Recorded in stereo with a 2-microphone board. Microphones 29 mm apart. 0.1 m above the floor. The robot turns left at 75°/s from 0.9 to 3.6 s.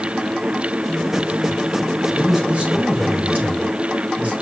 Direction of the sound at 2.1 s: 10° right.